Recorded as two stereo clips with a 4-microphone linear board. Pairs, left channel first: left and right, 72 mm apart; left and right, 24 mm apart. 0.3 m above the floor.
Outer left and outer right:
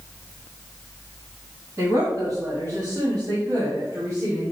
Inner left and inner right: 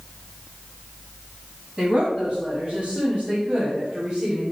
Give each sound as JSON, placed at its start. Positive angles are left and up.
{"t": 1.8, "sound": "a woman speaking", "side_deg": -50, "distance_m": 1.7}